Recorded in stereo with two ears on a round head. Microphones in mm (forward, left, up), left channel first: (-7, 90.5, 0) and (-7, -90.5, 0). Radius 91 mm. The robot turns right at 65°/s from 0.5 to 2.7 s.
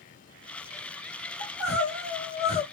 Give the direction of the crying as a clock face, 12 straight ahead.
9 o'clock.